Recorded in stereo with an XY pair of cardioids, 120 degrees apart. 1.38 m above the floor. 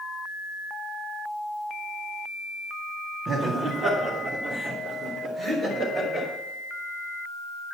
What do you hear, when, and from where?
3.3 s laughter: 45° right, 2 m; by 6.3 s 50° right, 4.5 m